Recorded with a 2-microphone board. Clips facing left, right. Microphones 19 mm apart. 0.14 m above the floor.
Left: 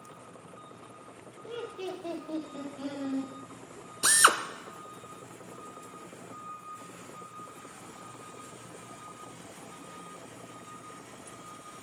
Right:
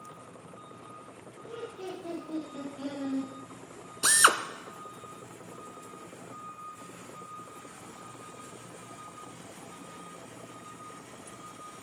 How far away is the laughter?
About 4.5 m.